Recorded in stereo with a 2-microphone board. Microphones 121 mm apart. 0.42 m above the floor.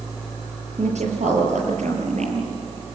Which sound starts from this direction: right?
A woman speaking, at 0.8 s.